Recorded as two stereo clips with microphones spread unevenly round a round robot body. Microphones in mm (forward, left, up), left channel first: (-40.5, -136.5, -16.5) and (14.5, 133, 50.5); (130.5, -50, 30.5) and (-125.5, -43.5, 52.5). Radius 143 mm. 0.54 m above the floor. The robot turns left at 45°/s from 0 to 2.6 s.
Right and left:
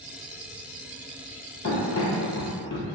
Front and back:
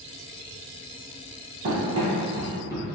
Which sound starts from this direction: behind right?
Running footsteps, at 1.6 s.